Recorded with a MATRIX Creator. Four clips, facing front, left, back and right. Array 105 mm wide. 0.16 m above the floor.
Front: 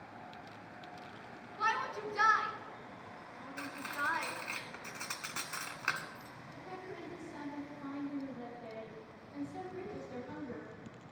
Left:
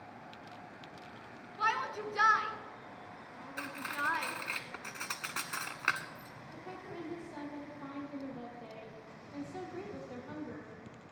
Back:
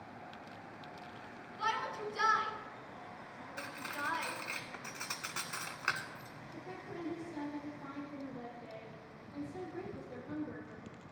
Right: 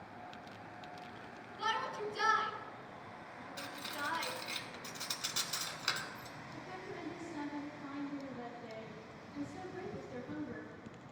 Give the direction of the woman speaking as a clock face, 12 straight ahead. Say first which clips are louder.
Left 2 dB, back 1 dB; 9 o'clock.